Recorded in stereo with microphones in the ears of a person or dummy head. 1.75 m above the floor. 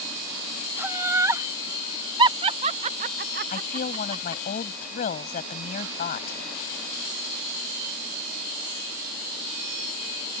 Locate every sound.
0.8 s laughter: 15° right (ahead or behind); by 4.4 s 25° right (ahead or behind)
3.5 s a woman speaking: 45° left (ahead or behind)